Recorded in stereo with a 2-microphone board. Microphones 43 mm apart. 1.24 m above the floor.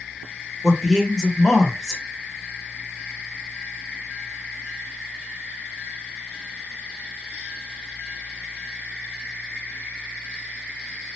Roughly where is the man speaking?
Centre.